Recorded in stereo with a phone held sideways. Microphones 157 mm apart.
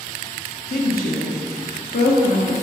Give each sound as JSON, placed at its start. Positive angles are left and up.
{"t": 0.7, "sound": "a woman speaking", "side_deg": 75, "distance_m": 1.2}